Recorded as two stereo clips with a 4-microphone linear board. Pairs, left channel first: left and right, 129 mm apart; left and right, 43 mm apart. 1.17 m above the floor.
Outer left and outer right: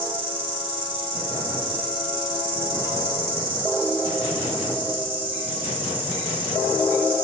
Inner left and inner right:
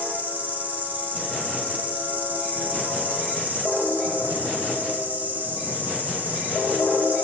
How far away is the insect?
About 3 m.